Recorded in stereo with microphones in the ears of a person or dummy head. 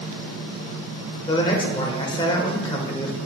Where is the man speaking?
20° left (ahead or behind), 1.1 m.